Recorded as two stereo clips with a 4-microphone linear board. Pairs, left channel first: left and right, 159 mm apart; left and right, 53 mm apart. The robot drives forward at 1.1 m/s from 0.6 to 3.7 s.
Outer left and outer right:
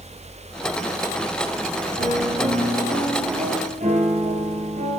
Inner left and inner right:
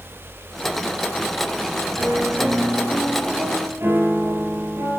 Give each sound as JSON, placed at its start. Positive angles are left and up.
{"t": 2.0, "sound": "a piano", "side_deg": -60, "distance_m": 3.0}